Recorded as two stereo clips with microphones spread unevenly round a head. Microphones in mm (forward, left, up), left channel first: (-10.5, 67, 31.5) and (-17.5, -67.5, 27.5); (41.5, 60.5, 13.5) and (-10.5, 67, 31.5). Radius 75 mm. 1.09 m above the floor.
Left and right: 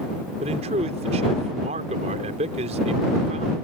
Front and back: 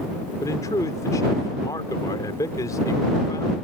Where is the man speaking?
45° right.